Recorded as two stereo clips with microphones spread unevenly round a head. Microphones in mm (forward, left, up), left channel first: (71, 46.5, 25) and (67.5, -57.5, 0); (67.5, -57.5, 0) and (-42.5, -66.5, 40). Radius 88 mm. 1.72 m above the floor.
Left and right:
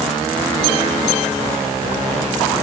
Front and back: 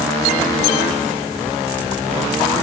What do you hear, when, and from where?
Only background noise.